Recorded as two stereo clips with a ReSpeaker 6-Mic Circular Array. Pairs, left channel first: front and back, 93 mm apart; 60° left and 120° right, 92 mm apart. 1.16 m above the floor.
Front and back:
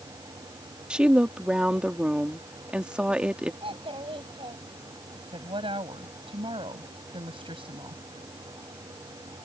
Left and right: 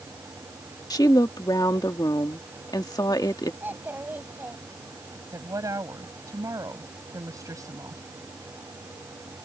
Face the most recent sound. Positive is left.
turn(degrees=-170)